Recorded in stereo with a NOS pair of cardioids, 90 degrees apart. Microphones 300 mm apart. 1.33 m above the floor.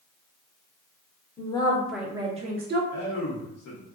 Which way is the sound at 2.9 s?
55° left.